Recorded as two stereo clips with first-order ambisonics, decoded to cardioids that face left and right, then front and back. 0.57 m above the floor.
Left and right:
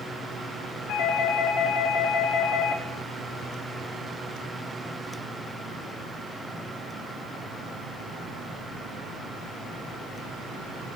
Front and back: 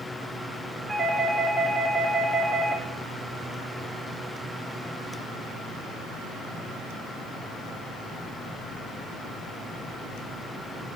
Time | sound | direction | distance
0.9 | a doorbell | 105° left | 2 m